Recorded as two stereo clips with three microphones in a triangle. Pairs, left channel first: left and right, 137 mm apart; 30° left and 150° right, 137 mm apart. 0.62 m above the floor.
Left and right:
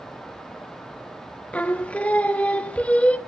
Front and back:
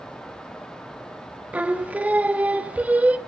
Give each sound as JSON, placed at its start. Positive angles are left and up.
{"t": 1.5, "sound": "singing", "azimuth_deg": 150, "distance_m": 0.7}